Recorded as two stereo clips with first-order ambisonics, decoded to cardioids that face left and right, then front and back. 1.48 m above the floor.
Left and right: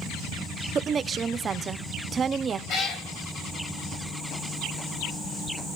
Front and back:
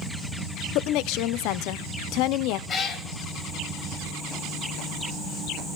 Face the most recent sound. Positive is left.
turn(degrees=50)